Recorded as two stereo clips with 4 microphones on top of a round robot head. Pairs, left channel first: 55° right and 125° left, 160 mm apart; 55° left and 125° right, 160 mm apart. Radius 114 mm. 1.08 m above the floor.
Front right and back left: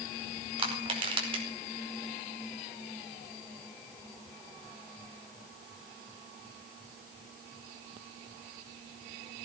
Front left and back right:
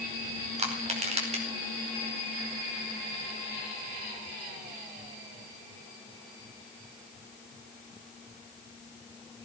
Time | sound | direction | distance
0.6 | crushing | 175° right | 5 m